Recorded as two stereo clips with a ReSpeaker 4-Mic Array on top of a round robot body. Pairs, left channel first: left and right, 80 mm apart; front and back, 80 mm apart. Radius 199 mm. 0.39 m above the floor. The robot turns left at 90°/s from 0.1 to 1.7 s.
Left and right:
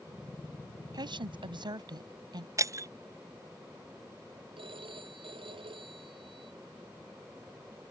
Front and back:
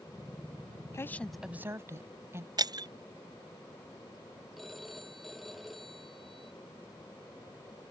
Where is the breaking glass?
140° right.